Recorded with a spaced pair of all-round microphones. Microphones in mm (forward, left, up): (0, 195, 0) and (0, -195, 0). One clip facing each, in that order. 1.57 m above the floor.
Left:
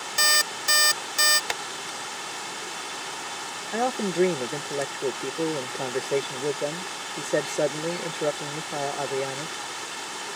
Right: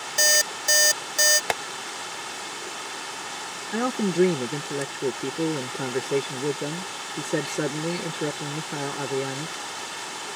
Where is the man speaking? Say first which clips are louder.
Right 2 dB; 20° right (ahead or behind).